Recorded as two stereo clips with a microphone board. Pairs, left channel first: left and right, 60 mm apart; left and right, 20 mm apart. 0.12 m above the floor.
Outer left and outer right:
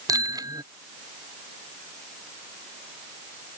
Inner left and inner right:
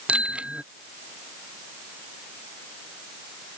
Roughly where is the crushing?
No crushing in this recording.